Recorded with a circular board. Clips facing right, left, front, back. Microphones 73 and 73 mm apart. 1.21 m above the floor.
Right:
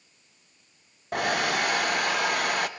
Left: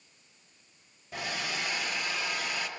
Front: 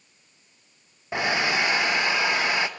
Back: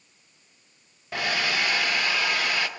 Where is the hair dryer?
65° right, 0.6 m.